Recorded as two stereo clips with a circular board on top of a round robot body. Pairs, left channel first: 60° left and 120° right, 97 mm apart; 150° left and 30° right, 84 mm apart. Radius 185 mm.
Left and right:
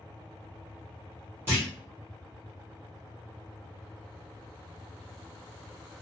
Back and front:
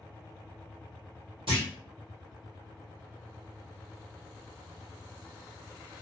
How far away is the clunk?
About 1.2 m.